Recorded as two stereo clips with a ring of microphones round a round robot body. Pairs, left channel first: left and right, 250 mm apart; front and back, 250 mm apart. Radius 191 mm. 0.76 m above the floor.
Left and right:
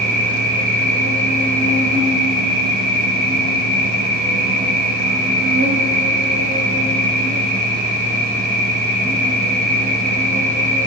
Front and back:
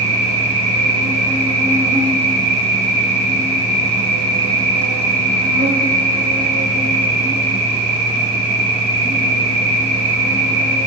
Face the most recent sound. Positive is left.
turn(degrees=-150)